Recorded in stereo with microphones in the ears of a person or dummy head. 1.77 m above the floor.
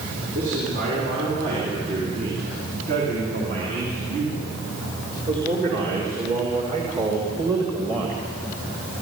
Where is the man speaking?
60° right (ahead or behind), 6.5 m; by 8.2 s 25° right (ahead or behind), 2.5 m.